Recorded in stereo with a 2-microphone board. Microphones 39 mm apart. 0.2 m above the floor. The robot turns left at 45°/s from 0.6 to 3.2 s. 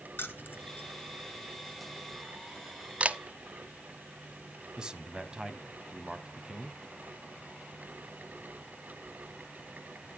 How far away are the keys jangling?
About 1.6 m.